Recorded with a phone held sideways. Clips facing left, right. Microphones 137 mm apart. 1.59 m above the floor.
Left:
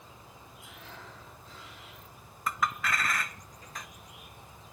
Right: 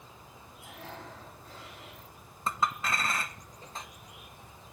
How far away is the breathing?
About 6.5 m.